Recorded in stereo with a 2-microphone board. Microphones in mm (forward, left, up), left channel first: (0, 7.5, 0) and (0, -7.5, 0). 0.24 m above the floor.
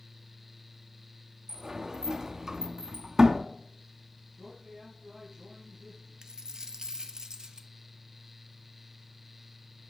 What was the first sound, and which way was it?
A sliding door, 45° right (ahead or behind).